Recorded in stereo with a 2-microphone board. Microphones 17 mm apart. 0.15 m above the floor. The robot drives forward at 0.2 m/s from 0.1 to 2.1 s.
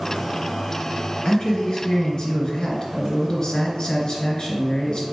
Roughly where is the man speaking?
Left.